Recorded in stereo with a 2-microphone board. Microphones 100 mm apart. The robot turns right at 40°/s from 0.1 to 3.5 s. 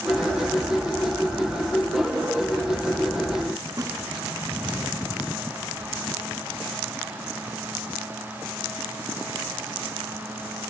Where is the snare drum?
35° right (ahead or behind).